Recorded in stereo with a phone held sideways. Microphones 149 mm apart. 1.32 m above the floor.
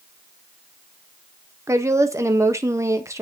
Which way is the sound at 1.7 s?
20° right (ahead or behind).